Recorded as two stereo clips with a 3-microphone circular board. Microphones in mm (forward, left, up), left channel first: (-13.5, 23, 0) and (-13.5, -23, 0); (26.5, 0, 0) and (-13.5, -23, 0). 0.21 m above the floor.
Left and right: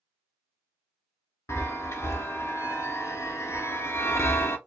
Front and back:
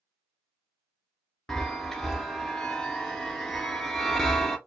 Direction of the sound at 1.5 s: 110° left.